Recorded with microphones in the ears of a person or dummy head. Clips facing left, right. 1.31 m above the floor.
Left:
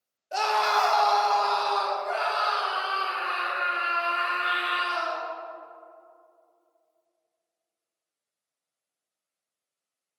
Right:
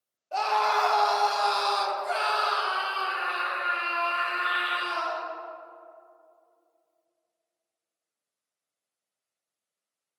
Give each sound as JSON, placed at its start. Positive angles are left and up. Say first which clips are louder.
{"t": 0.3, "sound": "a scream", "louder": "even", "side_deg": 20, "distance_m": 0.9}